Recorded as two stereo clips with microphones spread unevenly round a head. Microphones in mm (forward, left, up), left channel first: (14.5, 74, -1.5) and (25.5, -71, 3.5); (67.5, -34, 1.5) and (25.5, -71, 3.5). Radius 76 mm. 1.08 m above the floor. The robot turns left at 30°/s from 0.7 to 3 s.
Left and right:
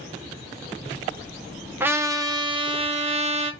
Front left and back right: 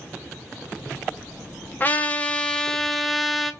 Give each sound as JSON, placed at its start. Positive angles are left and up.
{"t": 1.8, "sound": "a trumpet", "azimuth_deg": -10, "distance_m": 1.1}